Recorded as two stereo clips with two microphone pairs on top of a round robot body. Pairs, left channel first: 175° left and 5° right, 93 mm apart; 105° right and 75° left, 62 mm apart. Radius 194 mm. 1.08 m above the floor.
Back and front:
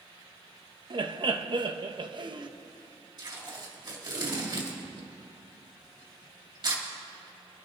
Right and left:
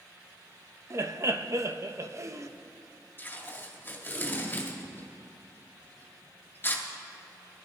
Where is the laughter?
35° left, 0.9 m.